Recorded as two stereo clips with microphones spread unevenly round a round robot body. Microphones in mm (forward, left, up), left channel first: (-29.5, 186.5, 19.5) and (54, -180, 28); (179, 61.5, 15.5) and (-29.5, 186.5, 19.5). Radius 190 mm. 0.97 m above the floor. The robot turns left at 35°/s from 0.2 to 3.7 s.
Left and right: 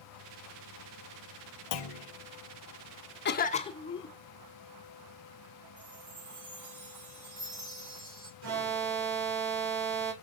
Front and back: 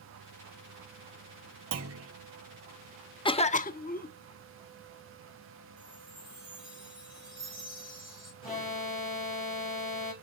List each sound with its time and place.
1.7 s a clunk: 130° left, 0.9 m; by 2.1 s 115° left, 0.9 m
3.2 s a cough: 40° left, 0.8 m; by 4.1 s 25° left, 0.8 m
5.8 s a chime: 125° right, 3.5 m
8.4 s an alarm: 120° right, 5 m